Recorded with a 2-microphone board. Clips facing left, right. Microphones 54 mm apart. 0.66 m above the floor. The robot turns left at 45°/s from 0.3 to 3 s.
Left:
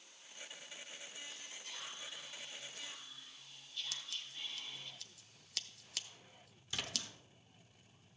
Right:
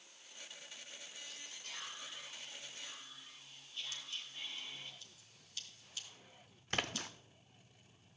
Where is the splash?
50° right (ahead or behind), 0.5 m.